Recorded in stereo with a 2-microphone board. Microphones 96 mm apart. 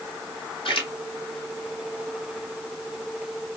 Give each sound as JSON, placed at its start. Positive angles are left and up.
{"t": 0.7, "sound": "a splash", "side_deg": 60, "distance_m": 2.5}